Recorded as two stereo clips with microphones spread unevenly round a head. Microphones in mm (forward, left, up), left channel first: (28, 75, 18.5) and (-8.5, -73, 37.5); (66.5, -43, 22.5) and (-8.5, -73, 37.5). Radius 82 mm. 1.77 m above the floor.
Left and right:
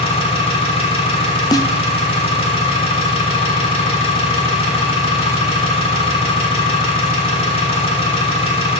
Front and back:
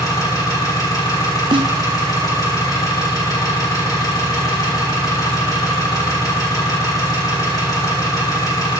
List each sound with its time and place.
0.0 s an engine running: 45° left, 1.5 m
1.5 s a snare drum: 145° left, 0.5 m